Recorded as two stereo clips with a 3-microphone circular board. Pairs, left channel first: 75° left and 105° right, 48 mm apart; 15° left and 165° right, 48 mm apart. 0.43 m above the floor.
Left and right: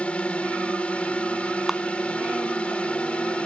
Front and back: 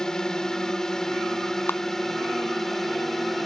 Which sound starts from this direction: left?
A drone, at 0.0 s.